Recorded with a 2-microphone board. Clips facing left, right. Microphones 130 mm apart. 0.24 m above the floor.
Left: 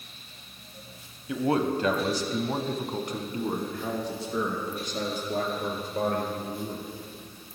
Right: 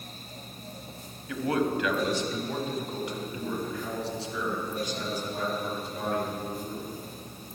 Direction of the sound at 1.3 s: 25° left (ahead or behind).